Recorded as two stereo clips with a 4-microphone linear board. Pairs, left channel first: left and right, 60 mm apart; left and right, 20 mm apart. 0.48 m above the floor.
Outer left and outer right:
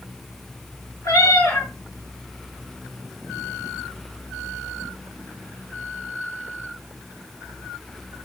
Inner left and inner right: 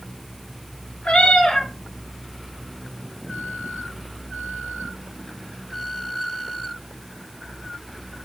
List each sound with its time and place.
1.0 s a cat meowing: 70° left (ahead or behind), 2.5 m